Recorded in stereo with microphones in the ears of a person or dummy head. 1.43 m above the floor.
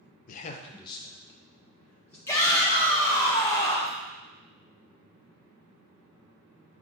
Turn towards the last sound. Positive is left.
turn(degrees=15)  # may be behind; listen again after turning